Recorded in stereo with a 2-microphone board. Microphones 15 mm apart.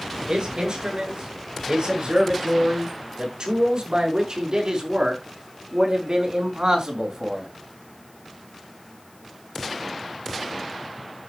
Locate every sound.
0.3 s a man speaking: 75° right (ahead or behind), 7 m; by 7.5 s 50° right (ahead or behind), 4 m